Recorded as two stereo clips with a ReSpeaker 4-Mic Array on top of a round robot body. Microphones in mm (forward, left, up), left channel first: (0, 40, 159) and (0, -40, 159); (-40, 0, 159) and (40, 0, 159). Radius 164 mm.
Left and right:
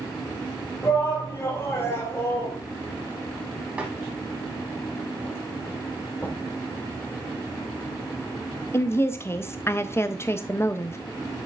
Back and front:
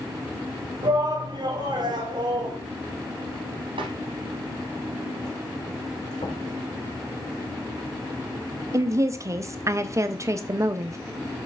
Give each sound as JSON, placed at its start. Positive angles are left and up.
{"t": 0.8, "sound": "a shout", "azimuth_deg": 30, "distance_m": 2.5}
{"t": 3.8, "sound": "a snare drum", "azimuth_deg": -15, "distance_m": 0.7}
{"t": 6.2, "sound": "knocking", "azimuth_deg": 155, "distance_m": 2.5}
{"t": 8.7, "sound": "a woman speaking", "azimuth_deg": 40, "distance_m": 0.7}